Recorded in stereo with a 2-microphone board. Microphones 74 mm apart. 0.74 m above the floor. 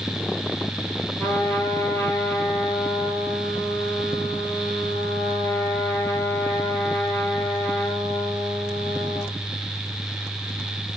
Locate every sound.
1.2 s a trumpet: 35° left (ahead or behind), 6.5 m